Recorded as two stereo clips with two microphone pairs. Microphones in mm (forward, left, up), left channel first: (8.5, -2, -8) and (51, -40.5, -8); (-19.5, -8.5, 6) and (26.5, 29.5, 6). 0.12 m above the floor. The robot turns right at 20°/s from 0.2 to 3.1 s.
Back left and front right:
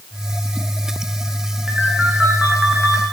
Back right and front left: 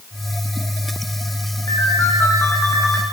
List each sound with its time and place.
1.7 s a ringtone: 125° right, 4.5 m; by 3.0 s 95° right, 4.5 m